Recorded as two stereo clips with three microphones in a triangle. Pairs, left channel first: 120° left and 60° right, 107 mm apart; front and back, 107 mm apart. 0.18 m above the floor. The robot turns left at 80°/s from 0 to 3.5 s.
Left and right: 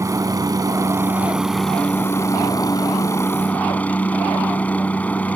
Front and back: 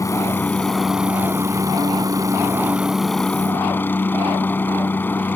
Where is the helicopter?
25° right; by 5.4 s 55° left.